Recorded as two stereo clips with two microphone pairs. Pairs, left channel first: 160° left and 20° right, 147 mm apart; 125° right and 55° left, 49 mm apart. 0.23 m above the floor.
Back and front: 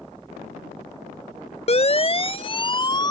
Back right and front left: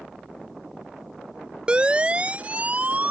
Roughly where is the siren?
Behind left.